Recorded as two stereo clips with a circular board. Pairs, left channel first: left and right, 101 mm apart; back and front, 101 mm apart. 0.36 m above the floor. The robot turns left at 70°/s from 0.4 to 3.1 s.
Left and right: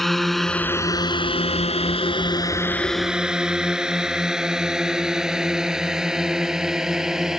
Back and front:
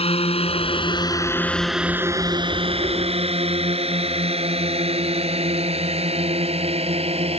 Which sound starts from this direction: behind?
A drone, at 0.0 s.